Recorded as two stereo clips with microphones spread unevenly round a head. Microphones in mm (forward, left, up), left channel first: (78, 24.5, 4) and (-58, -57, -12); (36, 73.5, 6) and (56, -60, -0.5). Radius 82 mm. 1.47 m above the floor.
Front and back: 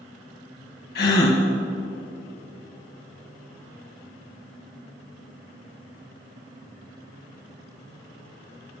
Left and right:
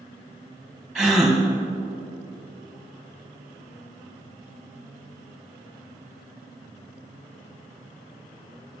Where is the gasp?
5° left, 1.3 m.